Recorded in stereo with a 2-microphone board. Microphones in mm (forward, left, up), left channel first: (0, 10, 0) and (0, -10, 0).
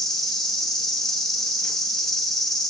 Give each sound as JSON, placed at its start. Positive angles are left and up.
{"t": 0.0, "sound": "an insect", "side_deg": 30, "distance_m": 1.0}